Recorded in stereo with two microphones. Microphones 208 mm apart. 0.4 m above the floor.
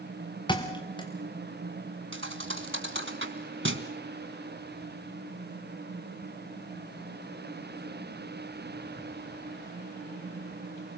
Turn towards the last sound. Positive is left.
turn(degrees=-70)  # may be behind; listen again after turning